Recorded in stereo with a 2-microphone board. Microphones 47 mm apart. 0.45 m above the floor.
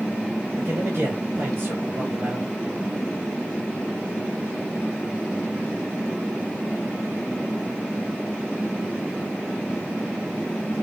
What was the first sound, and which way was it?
A man speaking, 65° right (ahead or behind).